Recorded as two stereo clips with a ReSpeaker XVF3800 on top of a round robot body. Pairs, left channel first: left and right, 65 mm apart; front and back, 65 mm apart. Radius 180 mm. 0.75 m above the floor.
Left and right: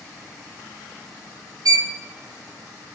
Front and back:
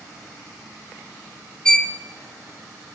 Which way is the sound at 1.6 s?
80° right.